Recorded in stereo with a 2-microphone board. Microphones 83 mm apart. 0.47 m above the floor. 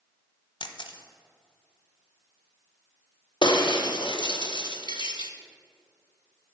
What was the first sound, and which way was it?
A camera shutter, 70° left (ahead or behind).